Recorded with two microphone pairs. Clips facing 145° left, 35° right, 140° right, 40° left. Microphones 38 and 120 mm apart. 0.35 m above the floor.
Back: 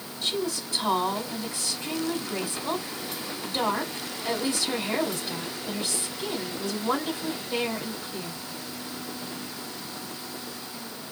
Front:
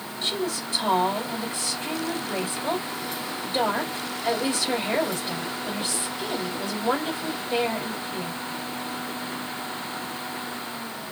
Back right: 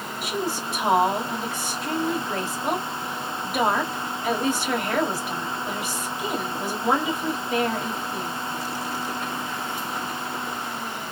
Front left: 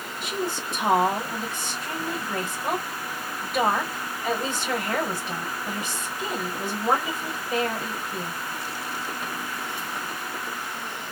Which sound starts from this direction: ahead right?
A woman speaking, at 0.2 s.